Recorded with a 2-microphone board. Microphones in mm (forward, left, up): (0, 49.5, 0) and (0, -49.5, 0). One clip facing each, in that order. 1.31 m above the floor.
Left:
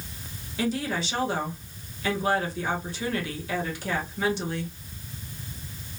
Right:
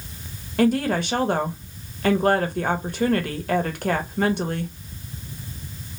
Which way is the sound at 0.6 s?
50° right (ahead or behind).